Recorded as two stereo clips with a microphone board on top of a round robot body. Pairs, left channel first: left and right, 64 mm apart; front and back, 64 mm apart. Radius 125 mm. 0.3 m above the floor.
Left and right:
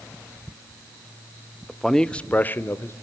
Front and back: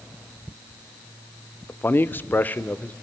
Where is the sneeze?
No sneeze in this recording.